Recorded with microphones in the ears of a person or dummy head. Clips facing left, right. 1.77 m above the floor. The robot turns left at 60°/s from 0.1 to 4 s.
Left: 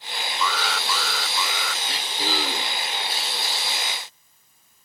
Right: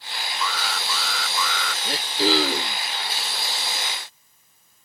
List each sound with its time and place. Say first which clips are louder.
0.4 s an alarm: left 3 dB; 80° left; by 1.8 s straight ahead
1.9 s throat clearing: right 11 dB; 35° right; by 2.8 s 95° right